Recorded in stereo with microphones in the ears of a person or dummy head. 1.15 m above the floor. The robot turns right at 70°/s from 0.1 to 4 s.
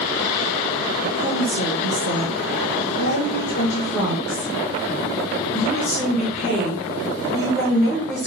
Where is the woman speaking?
30° right, 2.5 m; by 8.3 s 170° left, 2.5 m.